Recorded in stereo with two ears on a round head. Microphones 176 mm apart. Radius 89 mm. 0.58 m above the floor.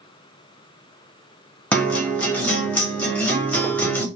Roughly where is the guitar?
Centre.